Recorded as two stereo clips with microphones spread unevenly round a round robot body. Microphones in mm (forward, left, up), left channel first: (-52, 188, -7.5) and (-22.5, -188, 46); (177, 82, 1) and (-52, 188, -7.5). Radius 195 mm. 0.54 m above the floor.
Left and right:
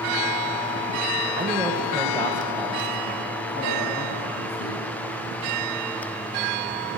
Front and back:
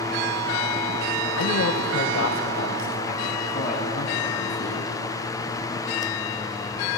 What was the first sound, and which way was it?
A man speaking, 5° right.